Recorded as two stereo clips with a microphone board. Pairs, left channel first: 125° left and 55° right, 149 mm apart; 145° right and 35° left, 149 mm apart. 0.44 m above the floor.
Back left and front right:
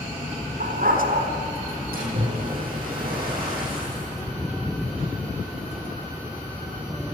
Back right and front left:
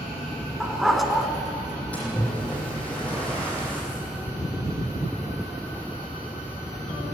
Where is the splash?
65° right, 9.5 m.